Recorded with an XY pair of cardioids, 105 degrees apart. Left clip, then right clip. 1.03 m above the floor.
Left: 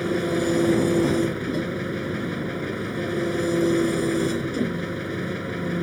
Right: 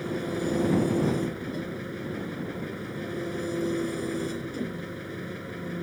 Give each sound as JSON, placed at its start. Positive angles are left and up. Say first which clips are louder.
{"t": 0.0, "sound": "an engine running", "louder": "left 7 dB", "azimuth_deg": 50}